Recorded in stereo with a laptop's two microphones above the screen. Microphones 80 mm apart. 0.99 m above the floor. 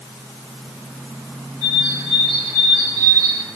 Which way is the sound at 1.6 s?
55° right (ahead or behind).